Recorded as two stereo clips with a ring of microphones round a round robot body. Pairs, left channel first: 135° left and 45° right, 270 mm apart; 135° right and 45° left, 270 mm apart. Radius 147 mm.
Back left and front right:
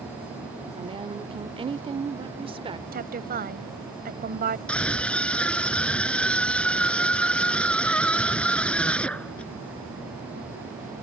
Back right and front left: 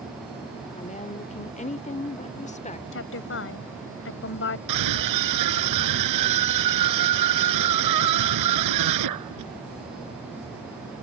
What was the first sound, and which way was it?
A woman speaking, 100° right.